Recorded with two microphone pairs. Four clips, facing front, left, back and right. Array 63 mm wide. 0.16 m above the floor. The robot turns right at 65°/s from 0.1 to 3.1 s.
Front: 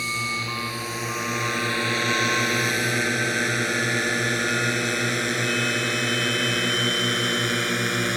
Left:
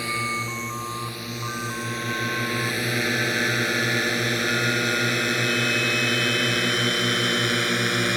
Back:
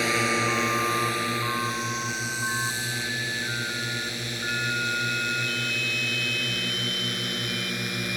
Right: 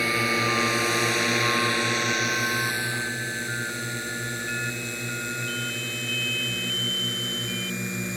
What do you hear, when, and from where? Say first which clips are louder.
0.0 s a drone: right 3 dB, back 4 dB; 155° right; by 8.2 s 55° left